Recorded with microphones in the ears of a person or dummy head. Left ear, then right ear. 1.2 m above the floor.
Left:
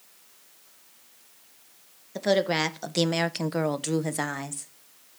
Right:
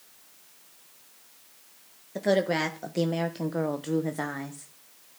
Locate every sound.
2.1 s a woman speaking: 20° left (ahead or behind), 1.4 m; by 4.7 s 35° left (ahead or behind), 1.4 m